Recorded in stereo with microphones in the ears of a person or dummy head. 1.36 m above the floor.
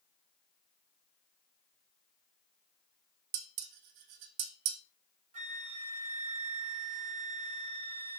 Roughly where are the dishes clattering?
Right.